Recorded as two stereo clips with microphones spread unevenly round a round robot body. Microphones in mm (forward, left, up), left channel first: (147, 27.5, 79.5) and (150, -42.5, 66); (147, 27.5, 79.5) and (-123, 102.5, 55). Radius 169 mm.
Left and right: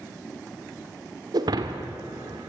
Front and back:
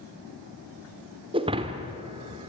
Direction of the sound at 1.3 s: 120° right.